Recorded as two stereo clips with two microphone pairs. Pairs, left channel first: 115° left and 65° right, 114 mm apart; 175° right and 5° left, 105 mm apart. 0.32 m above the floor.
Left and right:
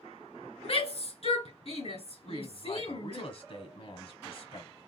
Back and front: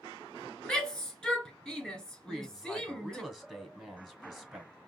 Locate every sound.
0.6 s a shout: 105° left, 2.5 m
2.2 s a woman speaking: 95° left, 1.8 m